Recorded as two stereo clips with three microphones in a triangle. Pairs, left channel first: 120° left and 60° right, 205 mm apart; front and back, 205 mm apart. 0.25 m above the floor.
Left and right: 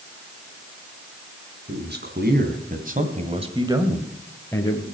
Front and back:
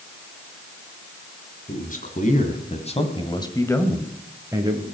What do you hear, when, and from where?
1.7 s a man speaking: 40° right, 3 m; by 4.8 s 145° left, 1.7 m